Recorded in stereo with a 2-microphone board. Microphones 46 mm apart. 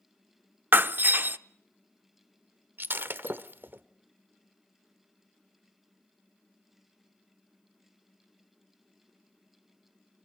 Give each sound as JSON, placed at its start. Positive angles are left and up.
{"t": 0.7, "sound": "breaking glass", "side_deg": -45, "distance_m": 0.7}
{"t": 2.8, "sound": "breaking glass", "side_deg": -50, "distance_m": 0.9}